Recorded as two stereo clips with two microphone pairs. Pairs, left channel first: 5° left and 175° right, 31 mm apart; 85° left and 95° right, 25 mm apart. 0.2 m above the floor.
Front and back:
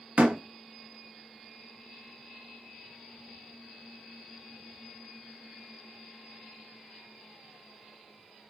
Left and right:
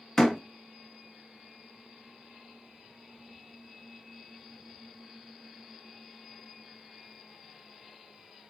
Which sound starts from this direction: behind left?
A door slam, at 0.2 s.